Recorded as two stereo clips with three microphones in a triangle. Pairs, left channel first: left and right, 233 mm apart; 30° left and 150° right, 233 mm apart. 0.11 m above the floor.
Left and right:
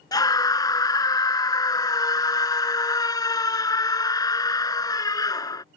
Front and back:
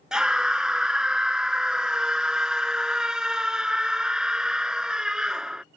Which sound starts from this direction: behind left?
A scream, at 0.1 s.